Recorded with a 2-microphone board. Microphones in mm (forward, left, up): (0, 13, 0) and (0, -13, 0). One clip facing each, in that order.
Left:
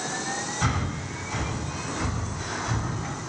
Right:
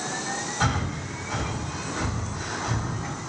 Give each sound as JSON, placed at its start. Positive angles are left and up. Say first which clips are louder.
{"t": 0.6, "sound": "breathing", "louder": "right 4 dB", "side_deg": -45, "distance_m": 2.5}